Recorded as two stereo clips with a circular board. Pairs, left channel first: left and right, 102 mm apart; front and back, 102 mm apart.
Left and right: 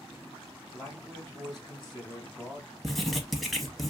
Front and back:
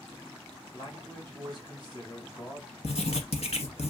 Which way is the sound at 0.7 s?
10° left.